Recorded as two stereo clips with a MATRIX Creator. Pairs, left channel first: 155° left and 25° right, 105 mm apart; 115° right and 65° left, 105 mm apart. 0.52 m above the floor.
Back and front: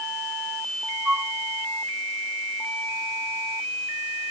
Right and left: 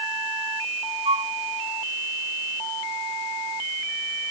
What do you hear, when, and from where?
1.1 s a flute: 55° left